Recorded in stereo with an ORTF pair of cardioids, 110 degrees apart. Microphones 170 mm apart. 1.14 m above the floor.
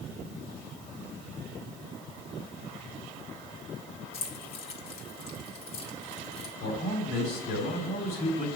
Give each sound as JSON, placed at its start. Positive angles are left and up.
{"t": 4.1, "sound": "keys jangling", "azimuth_deg": 65, "distance_m": 1.8}
{"t": 6.6, "sound": "a man speaking", "azimuth_deg": 70, "distance_m": 3.0}